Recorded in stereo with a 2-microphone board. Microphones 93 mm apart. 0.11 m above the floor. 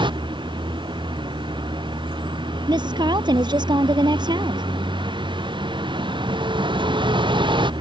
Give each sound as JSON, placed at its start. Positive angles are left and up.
{"t": 0.0, "sound": "a vehicle", "side_deg": -60}
{"t": 2.7, "sound": "a woman speaking", "side_deg": -55}